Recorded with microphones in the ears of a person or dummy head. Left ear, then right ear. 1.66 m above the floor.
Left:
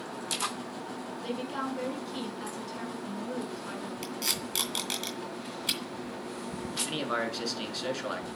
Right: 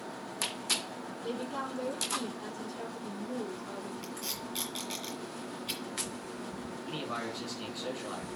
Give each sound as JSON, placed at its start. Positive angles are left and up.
{"t": 1.2, "sound": "a woman speaking", "side_deg": 65, "distance_m": 3.5}
{"t": 4.0, "sound": "tape being pulled", "side_deg": 35, "distance_m": 2.5}
{"t": 6.8, "sound": "a man speaking", "side_deg": 70, "distance_m": 2.5}